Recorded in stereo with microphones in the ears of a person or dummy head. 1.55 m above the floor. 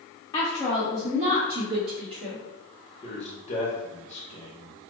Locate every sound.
0.3 s a woman speaking: 25° left (ahead or behind), 0.6 m; by 2.4 s 70° right (ahead or behind), 1.2 m
3.0 s a man speaking: 35° left (ahead or behind), 0.8 m